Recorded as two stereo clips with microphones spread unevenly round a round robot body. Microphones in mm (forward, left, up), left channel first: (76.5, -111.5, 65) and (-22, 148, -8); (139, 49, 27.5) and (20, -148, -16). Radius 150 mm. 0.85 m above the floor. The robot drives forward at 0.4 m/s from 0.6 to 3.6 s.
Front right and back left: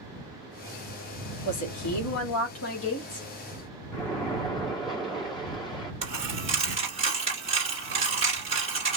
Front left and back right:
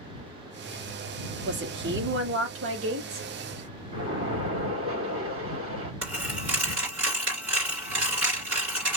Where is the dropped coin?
175° right, 2.5 m.